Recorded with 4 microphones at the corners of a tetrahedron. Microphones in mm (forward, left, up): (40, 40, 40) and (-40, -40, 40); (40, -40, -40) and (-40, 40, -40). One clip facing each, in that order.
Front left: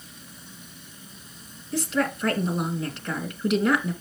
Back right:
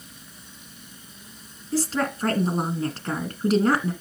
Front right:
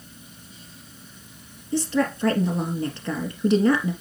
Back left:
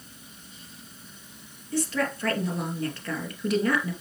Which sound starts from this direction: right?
A woman speaking, at 1.7 s.